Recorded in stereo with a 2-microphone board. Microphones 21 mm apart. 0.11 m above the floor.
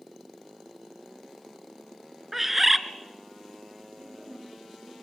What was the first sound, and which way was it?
A bird, 10° right (ahead or behind).